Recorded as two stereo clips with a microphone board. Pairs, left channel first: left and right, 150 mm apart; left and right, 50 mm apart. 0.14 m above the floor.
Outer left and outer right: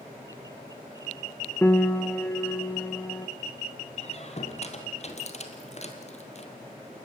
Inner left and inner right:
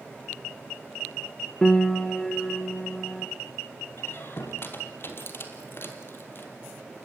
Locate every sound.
1.6 s a piano: 15° left (ahead or behind), 0.6 m
4.0 s a squeak: 45° left (ahead or behind), 2.5 m